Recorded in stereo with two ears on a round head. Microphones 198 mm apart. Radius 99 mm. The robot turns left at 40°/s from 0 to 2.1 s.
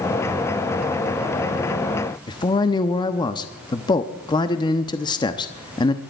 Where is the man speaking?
20° left (ahead or behind), 0.8 m.